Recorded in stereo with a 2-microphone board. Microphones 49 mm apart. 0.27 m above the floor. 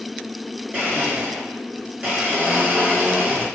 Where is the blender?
35° right (ahead or behind), 1.8 m.